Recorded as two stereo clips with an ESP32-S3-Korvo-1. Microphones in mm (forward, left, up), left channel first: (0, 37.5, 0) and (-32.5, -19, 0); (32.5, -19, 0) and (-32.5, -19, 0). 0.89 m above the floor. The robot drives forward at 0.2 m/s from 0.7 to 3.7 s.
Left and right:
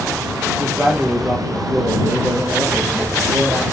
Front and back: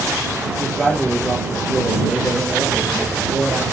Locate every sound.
0.6 s a man speaking: 65° right, 0.7 m; by 3.6 s 140° right, 0.8 m